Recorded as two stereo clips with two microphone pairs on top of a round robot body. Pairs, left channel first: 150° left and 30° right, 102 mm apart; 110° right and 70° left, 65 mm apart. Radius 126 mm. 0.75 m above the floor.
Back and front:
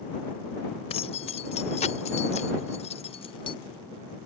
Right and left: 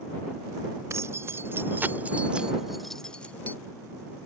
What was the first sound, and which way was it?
Keys jangling, 120° left.